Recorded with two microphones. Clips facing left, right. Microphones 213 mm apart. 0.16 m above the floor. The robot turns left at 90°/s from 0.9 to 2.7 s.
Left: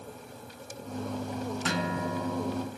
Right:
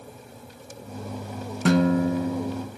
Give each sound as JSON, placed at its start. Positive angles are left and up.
{"t": 1.6, "sound": "a guitar", "azimuth_deg": -100, "distance_m": 0.7}